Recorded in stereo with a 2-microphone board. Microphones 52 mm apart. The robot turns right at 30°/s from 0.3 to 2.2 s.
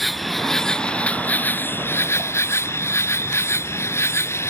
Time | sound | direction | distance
0.0 | an insect | straight ahead | ?